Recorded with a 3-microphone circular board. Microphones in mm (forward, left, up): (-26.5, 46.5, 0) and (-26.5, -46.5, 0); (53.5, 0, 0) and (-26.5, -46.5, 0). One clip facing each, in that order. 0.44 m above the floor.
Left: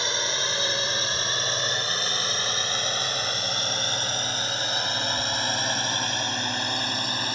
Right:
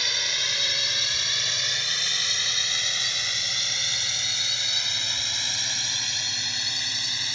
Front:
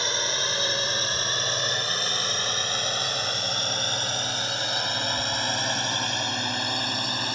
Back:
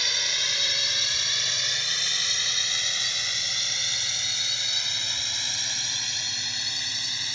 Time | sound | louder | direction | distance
0.0 | a drone | left 5 dB, front 6 dB | 55° left | ?